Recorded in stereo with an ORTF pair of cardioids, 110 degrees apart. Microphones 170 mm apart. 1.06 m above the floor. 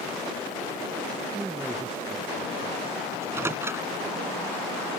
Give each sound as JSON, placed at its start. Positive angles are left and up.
{"t": 1.3, "sound": "a man speaking", "azimuth_deg": -10}
{"t": 3.1, "sound": "a microwave", "azimuth_deg": -15}